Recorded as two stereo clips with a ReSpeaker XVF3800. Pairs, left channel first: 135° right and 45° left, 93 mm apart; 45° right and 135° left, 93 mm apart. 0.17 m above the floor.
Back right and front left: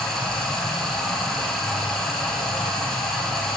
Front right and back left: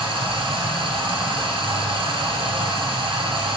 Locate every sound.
0.0 s running water: 140° left, 1.7 m